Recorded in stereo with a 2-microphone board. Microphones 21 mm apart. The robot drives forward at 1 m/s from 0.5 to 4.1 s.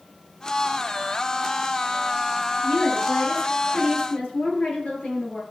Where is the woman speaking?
80° left, 8 m; by 5.4 s 70° left (ahead or behind), 8.5 m.